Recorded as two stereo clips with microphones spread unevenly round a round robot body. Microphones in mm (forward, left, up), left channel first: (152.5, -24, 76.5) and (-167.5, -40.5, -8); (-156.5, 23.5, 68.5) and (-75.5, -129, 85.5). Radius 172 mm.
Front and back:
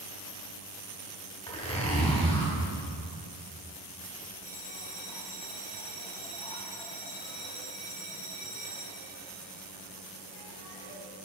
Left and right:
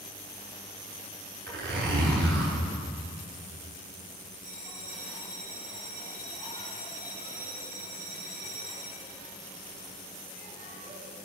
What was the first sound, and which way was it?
A zipper, 70° right.